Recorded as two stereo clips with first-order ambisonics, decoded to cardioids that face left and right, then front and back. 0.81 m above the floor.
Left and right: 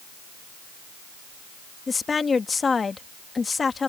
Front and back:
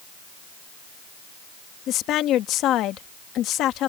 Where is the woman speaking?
20° left.